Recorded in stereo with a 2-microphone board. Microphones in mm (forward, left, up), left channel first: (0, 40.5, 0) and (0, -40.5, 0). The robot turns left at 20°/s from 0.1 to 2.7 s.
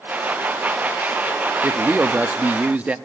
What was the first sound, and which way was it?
A man speaking, 25° right (ahead or behind).